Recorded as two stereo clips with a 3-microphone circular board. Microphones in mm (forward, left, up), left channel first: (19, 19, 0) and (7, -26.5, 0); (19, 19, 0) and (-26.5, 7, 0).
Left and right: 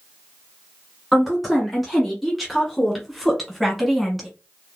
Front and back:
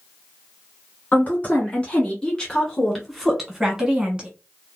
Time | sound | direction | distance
1.1 | a woman speaking | 10° right | 1.7 m